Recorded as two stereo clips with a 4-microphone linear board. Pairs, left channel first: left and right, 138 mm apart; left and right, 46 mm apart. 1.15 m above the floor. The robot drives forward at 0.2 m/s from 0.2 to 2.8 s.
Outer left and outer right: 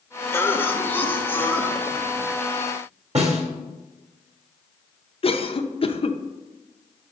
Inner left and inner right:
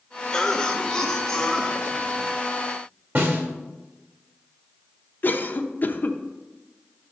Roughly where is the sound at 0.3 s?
Centre.